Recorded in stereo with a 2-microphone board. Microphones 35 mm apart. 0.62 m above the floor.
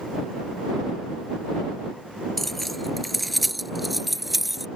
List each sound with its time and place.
2.4 s keys jangling: 5° left (ahead or behind); by 4.7 s 5° right (ahead or behind)